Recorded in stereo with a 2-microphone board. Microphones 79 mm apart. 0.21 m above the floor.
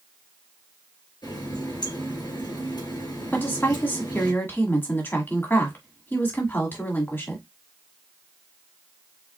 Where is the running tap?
70° left (ahead or behind), 2.5 m.